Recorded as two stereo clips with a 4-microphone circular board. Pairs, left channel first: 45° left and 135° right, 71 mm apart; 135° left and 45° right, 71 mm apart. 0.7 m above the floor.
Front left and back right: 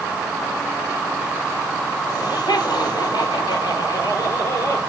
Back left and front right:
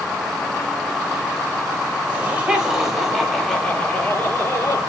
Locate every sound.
2.1 s laughter: 25° left, 4 m; by 4.8 s 85° left, 4 m